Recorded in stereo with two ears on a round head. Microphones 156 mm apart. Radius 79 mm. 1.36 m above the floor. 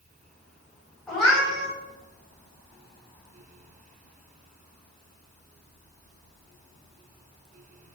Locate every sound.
1.1 s a cat meowing: 5° left (ahead or behind), 0.8 m